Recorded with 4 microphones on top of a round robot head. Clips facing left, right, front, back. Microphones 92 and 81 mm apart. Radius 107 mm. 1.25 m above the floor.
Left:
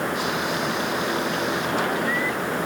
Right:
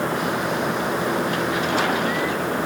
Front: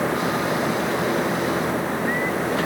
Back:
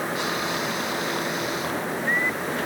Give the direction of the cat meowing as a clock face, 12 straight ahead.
I don't hear a cat meowing.